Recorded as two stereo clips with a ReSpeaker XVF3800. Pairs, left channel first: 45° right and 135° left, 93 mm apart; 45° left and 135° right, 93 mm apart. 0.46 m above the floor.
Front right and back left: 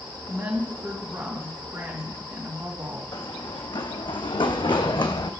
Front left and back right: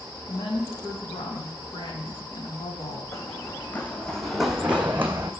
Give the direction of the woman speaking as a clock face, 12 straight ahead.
10 o'clock.